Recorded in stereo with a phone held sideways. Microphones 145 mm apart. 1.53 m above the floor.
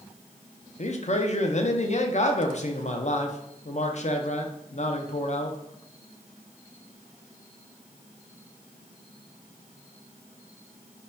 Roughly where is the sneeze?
I don't hear a sneeze.